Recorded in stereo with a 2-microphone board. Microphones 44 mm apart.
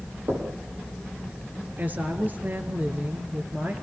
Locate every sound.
0.3 s knocking: 80° right, 7.5 m
1.8 s a woman speaking: 40° right (ahead or behind), 3.5 m